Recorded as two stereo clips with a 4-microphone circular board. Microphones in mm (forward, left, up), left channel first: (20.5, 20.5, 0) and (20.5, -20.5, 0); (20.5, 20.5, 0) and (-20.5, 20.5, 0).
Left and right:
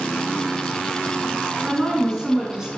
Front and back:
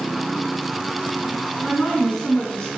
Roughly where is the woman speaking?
Ahead right.